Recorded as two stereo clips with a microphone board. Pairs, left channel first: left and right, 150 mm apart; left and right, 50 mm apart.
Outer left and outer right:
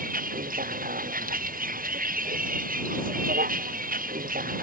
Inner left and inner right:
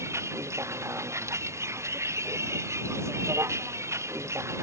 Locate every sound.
0.0 s a vehicle: 70° right (ahead or behind)